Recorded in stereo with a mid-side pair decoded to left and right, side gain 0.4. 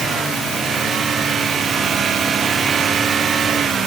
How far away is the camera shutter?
No camera shutter in this recording.